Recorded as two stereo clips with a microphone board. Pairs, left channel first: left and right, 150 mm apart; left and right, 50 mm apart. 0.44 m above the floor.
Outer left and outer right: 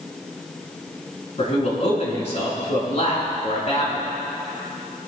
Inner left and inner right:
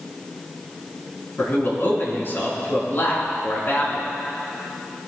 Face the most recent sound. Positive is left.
turn(degrees=45)  # may be behind; listen again after turning